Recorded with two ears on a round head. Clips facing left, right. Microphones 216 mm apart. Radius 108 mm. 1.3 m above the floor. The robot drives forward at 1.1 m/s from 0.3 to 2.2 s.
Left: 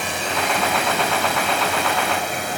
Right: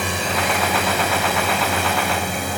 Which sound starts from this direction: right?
A drone, at 0.0 s.